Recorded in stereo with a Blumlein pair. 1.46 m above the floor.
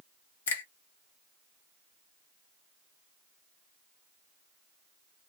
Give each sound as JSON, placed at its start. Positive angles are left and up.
{"t": 0.5, "sound": "a finger snap", "azimuth_deg": 60, "distance_m": 1.0}